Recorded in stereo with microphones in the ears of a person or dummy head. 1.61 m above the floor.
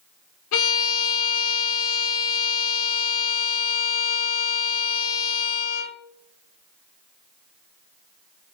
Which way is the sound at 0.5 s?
80° left.